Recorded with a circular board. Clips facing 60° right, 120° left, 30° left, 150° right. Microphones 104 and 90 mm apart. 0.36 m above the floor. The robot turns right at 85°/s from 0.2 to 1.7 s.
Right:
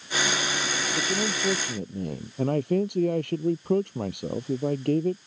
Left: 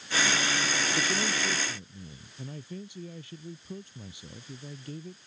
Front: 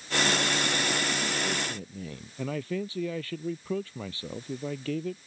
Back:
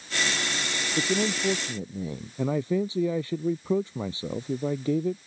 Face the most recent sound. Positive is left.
turn(degrees=-80)